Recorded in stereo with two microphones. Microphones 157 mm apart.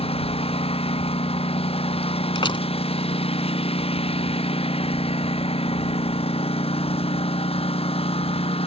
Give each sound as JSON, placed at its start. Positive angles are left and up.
{"t": 0.0, "sound": "a lawn mower", "side_deg": 35}
{"t": 2.4, "sound": "a door slam", "side_deg": 30}